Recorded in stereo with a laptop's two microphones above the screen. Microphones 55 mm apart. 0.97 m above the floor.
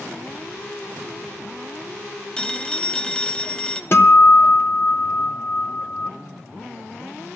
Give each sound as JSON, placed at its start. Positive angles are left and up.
{"t": 2.4, "sound": "a phone ringing", "side_deg": 15, "distance_m": 0.8}
{"t": 3.9, "sound": "a guitar", "side_deg": 45, "distance_m": 1.0}